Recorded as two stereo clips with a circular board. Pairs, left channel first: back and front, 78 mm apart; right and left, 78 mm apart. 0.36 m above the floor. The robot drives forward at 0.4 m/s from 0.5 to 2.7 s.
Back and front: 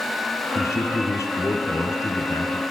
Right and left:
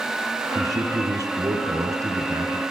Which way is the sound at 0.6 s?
130° left.